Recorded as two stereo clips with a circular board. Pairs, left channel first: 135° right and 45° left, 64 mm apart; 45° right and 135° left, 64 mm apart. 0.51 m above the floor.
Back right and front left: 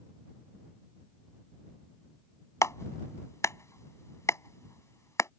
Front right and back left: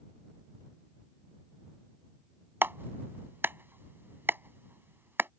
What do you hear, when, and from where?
2.6 s a clap: 175° right